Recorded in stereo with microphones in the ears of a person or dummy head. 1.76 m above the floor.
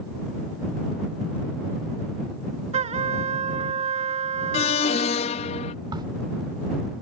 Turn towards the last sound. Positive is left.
turn(degrees=-20)  # may be behind; listen again after turning